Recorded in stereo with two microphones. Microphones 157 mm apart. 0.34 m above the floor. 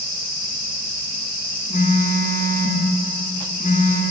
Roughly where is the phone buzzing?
Left.